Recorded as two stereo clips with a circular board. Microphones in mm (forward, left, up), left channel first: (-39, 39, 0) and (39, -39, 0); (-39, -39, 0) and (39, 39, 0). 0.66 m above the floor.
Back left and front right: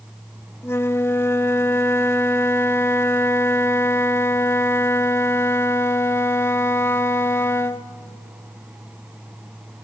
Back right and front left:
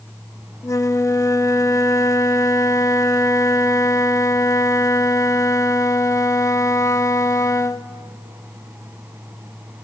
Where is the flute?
175° right, 0.6 m.